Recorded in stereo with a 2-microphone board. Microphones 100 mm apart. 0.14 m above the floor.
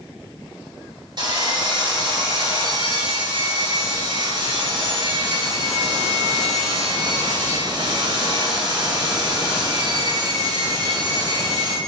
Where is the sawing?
45° right (ahead or behind), 2.5 m.